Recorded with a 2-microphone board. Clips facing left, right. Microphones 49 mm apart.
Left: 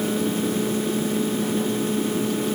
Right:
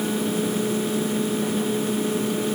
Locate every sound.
Only background noise.